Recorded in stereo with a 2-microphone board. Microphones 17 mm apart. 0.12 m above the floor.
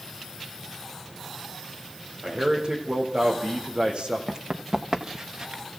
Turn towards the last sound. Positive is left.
turn(degrees=-50)  # may be behind; listen again after turning